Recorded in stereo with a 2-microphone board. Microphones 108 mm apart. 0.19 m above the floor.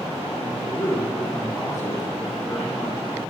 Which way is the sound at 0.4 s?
35° left (ahead or behind).